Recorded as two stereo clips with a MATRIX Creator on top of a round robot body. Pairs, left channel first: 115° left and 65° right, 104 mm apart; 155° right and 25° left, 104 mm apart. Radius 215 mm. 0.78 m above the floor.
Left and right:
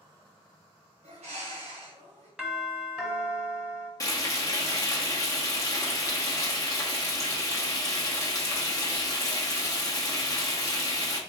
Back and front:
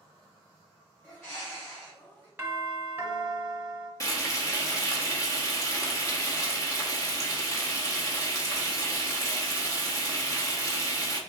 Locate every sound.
1.0 s a bird: 85° right, 1.5 m
2.4 s a doorbell: 5° left, 1.5 m
4.0 s frying: 155° left, 1.3 m